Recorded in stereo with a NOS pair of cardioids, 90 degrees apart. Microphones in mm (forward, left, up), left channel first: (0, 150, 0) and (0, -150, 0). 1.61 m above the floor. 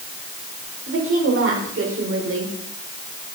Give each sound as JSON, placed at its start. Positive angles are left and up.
{"t": 0.9, "sound": "a woman speaking", "azimuth_deg": -45, "distance_m": 7.0}